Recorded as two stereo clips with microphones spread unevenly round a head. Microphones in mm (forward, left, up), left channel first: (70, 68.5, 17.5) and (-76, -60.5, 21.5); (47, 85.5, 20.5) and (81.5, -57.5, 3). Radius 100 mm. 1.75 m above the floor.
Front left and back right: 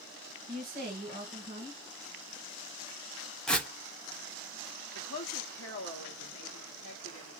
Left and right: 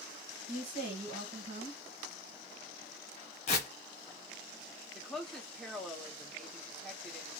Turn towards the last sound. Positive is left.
turn(degrees=15)